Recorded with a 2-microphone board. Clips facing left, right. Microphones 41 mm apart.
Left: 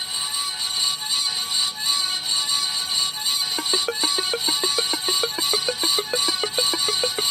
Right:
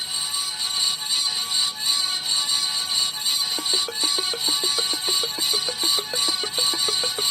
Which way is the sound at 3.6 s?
60° left (ahead or behind).